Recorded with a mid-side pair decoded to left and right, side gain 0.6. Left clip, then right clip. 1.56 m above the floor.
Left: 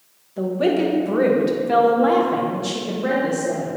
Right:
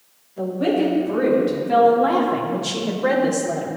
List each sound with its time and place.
0.4 s a woman speaking: 45° left, 2.5 m; by 3.7 s 45° right, 1.7 m